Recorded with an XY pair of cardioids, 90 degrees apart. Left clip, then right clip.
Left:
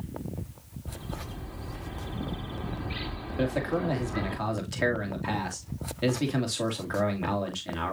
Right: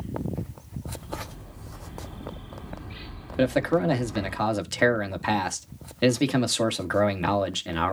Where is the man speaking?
60° right, 2.5 m.